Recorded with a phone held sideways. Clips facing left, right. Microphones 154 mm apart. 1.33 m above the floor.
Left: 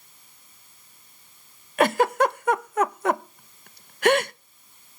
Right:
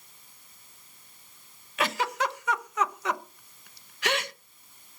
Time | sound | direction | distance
1.8 | a giggle | 50° left (ahead or behind) | 0.7 m